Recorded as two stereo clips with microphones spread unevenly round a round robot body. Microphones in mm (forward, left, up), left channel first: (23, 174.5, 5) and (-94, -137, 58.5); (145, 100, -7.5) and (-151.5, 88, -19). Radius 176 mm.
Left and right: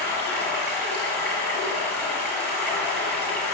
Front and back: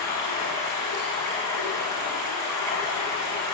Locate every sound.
0.0 s running water: 155° left, 5 m